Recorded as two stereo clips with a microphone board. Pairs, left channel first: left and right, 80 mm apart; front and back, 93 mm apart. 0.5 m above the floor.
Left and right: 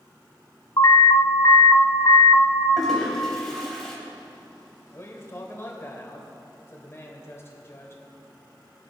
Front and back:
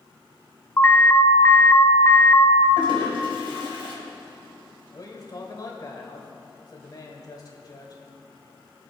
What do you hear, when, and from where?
0.8 s an alarm: 60° left, 1.0 m
2.8 s a toilet flushing: 175° left, 3.5 m
4.9 s a man speaking: 40° left, 2.5 m